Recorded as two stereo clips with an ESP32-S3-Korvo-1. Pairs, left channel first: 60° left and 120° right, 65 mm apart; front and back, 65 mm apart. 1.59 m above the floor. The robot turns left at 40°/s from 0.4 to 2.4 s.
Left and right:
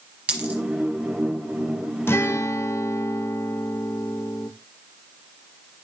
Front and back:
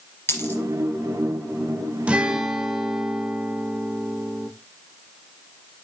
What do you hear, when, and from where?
0.3 s a dropped coin: 50° right, 3 m; by 0.6 s 55° right, 3 m
2.1 s a guitar: 110° left, 0.7 m; by 4.5 s 100° left, 0.7 m